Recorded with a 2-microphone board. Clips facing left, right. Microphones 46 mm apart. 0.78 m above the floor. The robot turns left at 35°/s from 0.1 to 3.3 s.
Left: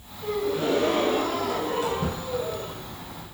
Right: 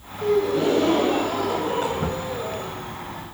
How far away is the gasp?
About 3.5 m.